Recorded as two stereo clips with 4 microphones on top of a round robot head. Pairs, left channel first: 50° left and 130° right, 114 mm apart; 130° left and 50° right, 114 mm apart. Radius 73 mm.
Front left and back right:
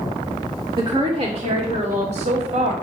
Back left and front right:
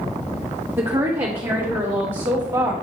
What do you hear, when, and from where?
0.8 s a woman speaking: 110° right, 1.4 m; by 2.7 s 115° right, 2.5 m